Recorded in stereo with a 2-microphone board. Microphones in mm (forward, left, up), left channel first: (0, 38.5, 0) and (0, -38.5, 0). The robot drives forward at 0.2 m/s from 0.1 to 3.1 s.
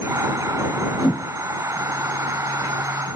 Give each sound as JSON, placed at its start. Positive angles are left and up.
{"t": 1.0, "sound": "a whoosh", "side_deg": 60, "distance_m": 3.5}